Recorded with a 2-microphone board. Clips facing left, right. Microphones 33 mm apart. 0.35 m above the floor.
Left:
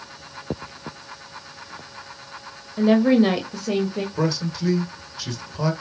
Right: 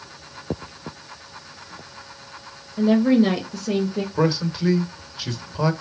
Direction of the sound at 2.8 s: 30° left (ahead or behind).